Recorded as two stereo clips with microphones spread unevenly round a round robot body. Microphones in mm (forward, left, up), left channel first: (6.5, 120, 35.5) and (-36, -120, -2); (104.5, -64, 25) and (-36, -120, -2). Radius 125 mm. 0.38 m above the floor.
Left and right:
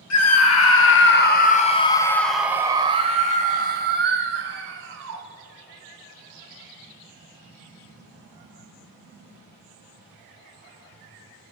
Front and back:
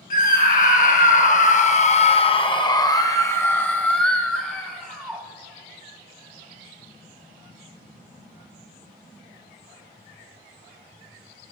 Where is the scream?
65° left, 1.8 m; by 5.2 s 75° right, 2.5 m.